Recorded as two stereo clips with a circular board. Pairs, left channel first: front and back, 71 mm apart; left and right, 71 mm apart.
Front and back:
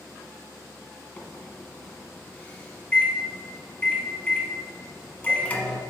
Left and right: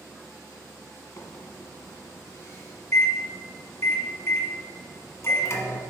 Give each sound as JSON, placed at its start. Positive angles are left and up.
{"t": 1.2, "sound": "a microwave", "azimuth_deg": 60, "distance_m": 1.1}